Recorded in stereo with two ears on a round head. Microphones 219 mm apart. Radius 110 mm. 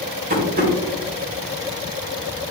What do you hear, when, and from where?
0.3 s tapping: 40° right (ahead or behind), 2.5 m